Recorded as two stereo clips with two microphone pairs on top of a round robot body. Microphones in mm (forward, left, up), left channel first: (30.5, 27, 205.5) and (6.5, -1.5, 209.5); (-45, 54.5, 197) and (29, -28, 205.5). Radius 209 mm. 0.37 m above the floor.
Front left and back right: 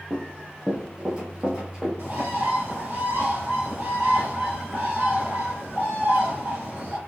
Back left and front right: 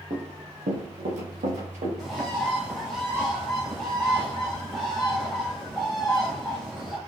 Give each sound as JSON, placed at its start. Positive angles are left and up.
{"t": 0.1, "sound": "running footsteps", "azimuth_deg": -85, "distance_m": 0.5}
{"t": 2.0, "sound": "a bird", "azimuth_deg": -140, "distance_m": 1.6}